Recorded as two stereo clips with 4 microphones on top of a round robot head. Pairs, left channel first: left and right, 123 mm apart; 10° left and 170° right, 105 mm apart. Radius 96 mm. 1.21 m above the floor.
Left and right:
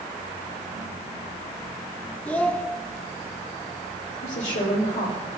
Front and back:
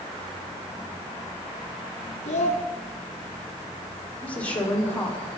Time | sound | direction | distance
2.2 | a child speaking | 10° left | 1.6 m
4.2 | a woman speaking | 85° left | 3.5 m